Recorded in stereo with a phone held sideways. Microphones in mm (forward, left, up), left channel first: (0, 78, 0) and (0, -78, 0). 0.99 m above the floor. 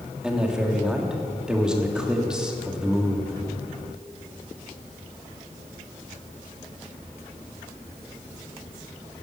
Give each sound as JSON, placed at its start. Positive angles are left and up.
{"t": 0.2, "sound": "a man speaking", "side_deg": -5, "distance_m": 1.5}